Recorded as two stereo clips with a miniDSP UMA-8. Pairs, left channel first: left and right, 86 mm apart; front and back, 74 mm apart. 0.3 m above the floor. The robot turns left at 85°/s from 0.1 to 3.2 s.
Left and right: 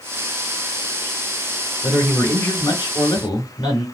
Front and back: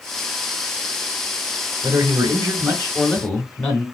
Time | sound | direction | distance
1.8 | a man speaking | 165° right | 2 m